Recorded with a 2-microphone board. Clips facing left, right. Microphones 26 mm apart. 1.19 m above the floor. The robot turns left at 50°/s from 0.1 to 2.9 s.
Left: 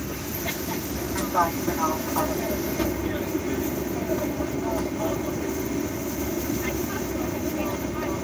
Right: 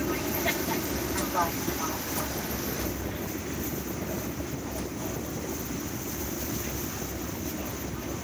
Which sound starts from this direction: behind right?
An aircraft, at 0.0 s.